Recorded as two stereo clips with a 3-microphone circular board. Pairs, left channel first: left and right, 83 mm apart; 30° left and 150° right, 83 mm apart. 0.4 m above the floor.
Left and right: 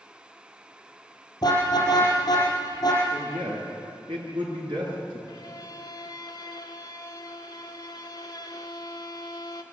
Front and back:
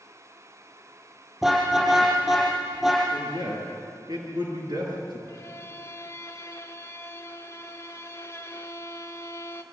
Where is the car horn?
125° left, 6.5 m.